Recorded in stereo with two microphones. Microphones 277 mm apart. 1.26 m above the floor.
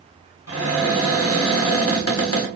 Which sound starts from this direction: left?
A cupboard door, at 0.5 s.